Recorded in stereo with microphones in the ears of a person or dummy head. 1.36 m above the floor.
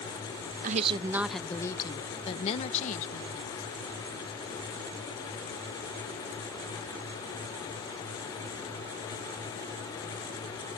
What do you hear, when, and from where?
0.6 s a woman speaking: 45° right (ahead or behind); by 3.7 s 45° left (ahead or behind)